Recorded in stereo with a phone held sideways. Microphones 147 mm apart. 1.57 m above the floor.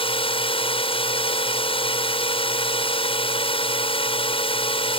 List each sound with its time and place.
0.0 s a drone: 40° left (ahead or behind)